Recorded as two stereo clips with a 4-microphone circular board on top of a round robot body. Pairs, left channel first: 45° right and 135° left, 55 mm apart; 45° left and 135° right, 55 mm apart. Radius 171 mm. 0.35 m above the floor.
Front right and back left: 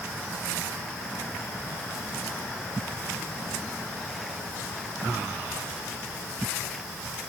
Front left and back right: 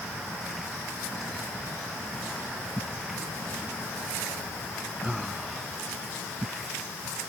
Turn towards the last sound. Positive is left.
No sound to turn to.